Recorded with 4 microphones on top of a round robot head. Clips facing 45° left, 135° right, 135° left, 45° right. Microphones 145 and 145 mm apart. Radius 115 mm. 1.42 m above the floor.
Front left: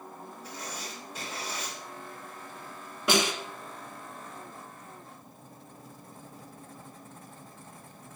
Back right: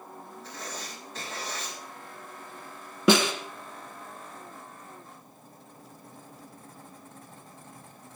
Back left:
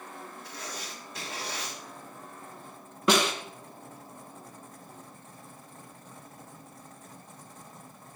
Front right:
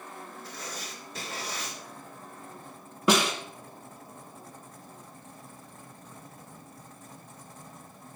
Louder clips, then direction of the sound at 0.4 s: Back right 1 dB, even; 35° right.